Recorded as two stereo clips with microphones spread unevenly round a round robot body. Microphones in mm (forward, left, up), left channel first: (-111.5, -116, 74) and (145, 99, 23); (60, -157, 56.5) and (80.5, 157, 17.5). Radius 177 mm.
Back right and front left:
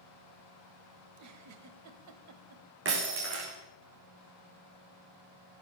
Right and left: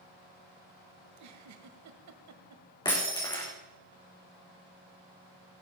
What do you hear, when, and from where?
1.1 s a giggle: 65° left, 1.2 m
2.9 s breaking glass: 15° right, 4 m